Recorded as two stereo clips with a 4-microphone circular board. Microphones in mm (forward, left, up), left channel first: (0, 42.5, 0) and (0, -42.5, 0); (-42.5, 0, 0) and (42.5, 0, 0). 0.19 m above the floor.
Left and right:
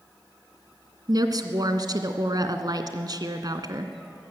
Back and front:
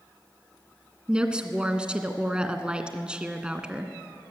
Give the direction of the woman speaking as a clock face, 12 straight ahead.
3 o'clock.